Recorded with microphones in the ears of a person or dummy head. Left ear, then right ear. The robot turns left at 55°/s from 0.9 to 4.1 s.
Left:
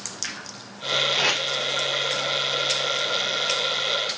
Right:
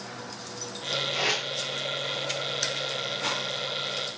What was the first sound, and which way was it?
Tape being pulled, 65° left (ahead or behind).